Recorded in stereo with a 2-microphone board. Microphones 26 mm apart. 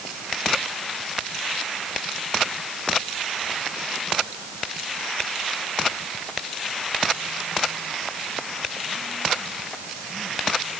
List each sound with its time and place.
Only background noise.